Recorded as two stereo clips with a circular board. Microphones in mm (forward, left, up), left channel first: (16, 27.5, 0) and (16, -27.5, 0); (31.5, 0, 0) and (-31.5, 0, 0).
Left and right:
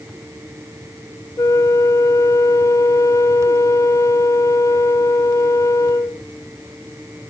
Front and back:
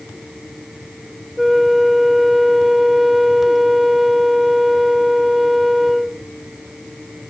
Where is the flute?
95° left.